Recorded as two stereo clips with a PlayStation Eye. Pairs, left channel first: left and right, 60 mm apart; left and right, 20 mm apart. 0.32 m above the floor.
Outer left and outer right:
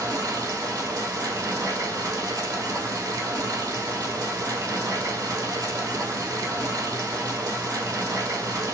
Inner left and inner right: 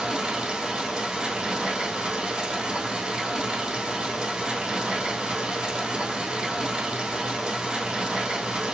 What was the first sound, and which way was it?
Running water, 80° right.